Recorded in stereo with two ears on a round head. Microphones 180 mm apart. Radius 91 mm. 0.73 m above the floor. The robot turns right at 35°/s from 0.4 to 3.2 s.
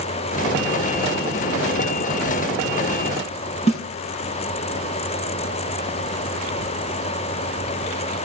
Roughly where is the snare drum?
Left.